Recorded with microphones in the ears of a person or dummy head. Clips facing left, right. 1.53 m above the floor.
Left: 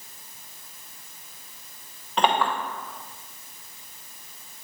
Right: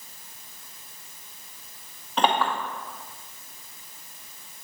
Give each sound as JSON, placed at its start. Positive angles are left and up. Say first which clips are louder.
{"t": 2.2, "sound": "a clink", "louder": "left 1 dB", "side_deg": 0, "distance_m": 0.8}